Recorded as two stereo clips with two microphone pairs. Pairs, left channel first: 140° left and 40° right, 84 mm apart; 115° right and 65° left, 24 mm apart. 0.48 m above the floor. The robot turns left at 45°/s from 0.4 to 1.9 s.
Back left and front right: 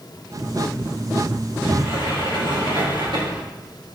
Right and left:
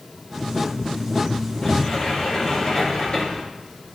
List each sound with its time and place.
1.6 s a sliding door: 45° right, 4 m; by 3.4 s 55° right, 4 m